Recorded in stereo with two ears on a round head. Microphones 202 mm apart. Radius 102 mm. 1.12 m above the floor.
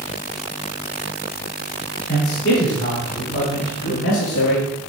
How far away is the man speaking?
About 3.5 m.